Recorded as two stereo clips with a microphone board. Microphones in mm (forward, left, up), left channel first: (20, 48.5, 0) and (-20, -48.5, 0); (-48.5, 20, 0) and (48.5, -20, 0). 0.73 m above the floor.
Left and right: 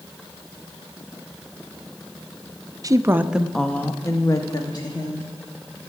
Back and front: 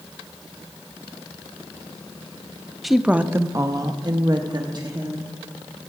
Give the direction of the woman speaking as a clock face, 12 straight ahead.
4 o'clock.